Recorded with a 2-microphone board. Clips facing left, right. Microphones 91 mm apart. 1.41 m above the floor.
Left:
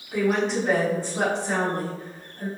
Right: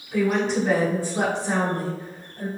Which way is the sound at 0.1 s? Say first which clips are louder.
Right 1 dB; 15° left (ahead or behind).